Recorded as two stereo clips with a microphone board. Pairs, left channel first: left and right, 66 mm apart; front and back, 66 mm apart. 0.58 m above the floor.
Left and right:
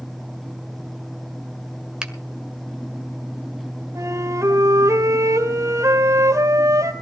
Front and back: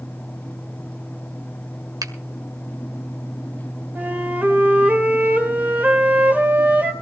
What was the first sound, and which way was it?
A finger snap, 170° right.